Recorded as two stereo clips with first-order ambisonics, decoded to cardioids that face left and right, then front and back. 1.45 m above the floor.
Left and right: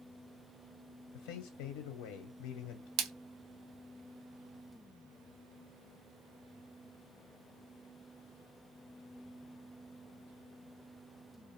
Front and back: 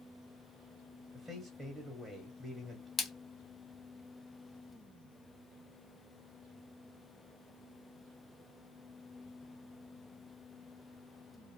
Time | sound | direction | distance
1.1 | a man speaking | 90° left | 0.6 m
3.0 | a splash | 75° right | 0.6 m